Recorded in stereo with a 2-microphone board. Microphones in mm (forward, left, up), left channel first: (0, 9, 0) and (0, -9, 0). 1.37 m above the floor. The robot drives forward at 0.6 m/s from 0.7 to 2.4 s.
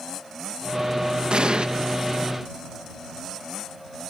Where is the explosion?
60° right (ahead or behind); by 1.7 s 55° right (ahead or behind).